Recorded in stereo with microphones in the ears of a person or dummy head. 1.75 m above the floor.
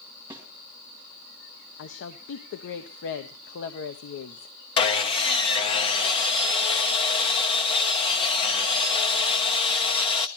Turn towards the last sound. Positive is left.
turn(degrees=25)  # may be behind; listen again after turning